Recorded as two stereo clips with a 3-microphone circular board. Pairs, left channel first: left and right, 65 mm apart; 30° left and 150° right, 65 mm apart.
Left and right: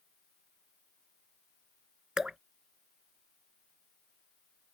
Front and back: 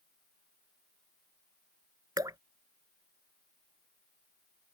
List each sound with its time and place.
2.2 s dripping: 170° right